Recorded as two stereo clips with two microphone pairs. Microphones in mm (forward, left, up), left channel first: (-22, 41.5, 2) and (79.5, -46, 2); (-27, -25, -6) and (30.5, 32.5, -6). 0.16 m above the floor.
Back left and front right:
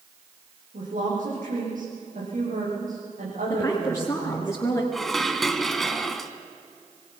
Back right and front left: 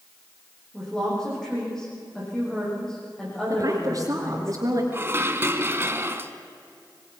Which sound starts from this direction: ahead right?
A woman speaking, at 0.7 s.